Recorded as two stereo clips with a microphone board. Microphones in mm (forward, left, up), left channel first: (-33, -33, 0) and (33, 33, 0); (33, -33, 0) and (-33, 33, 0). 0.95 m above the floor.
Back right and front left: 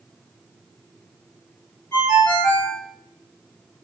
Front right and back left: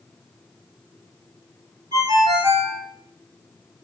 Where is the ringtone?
165° left, 1.7 m.